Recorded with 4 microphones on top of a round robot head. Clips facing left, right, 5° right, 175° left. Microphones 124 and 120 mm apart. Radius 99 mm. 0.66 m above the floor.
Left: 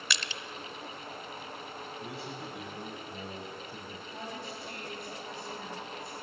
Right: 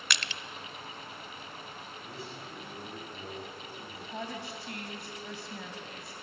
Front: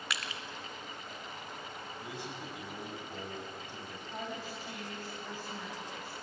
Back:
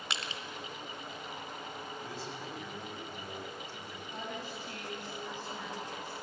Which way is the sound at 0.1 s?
115° right.